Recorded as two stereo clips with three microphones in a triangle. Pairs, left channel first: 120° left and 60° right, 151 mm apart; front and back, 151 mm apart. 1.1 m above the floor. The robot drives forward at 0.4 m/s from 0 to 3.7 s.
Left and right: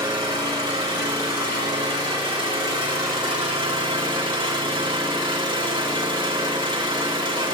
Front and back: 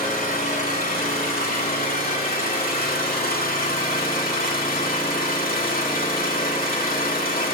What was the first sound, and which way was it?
An engine running, straight ahead.